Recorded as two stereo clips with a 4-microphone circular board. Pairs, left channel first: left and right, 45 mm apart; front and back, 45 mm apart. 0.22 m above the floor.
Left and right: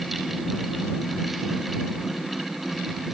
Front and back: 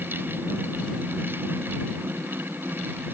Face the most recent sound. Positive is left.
No sound to turn to.